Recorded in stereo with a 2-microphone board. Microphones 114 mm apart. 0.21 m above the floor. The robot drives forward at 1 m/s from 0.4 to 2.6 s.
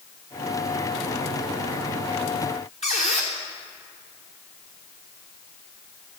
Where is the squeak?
70° left (ahead or behind), 1.7 m.